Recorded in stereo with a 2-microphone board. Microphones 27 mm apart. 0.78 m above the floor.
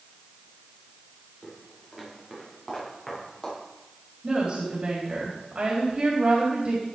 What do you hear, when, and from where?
1.4 s footsteps: 15° right (ahead or behind), 8 m; by 3.6 s 5° left (ahead or behind), 8 m
4.2 s a woman speaking: 40° right (ahead or behind), 4 m